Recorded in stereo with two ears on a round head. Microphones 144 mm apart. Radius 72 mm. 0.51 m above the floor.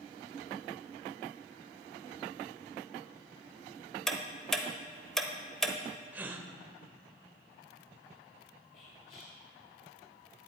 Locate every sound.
4.1 s ticking: 5° left (ahead or behind), 0.8 m
6.1 s a gasp: 10° right (ahead or behind), 0.7 m
8.7 s whispering: 55° left (ahead or behind), 1.6 m